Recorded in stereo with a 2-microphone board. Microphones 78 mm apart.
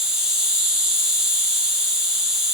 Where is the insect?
10° right (ahead or behind), 1.9 m.